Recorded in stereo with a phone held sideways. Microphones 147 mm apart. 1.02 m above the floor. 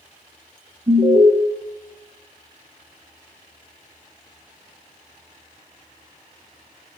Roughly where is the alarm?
Right.